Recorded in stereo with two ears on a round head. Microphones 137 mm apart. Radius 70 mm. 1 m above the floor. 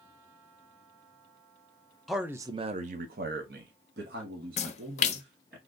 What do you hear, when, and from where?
2.1 s a man speaking: centre (ahead or behind), 0.5 m; by 5.6 s 75° right (ahead or behind), 1.9 m
4.6 s a splash: 45° left (ahead or behind), 0.6 m